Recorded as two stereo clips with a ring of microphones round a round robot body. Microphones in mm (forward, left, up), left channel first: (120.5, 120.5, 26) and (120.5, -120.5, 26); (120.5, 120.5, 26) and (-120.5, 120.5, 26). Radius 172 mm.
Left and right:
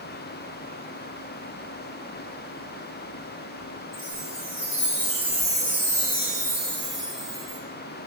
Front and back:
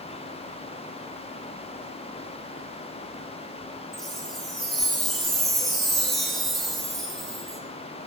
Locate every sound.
3.9 s a chime: 90° left, 1.4 m